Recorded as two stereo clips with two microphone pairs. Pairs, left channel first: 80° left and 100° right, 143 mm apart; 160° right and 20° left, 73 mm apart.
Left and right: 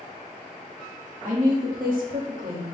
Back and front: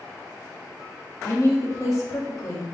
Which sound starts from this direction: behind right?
A woman speaking, at 1.2 s.